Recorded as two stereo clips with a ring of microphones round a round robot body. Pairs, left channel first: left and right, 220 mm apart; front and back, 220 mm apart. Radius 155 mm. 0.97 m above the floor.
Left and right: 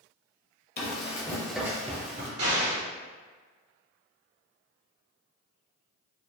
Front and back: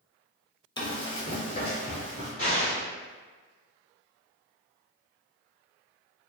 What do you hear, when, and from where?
0.8 s running footsteps: 65° left, 1.3 m; by 2.3 s 65° right, 1.3 m
2.4 s an explosion: 75° right, 1.7 m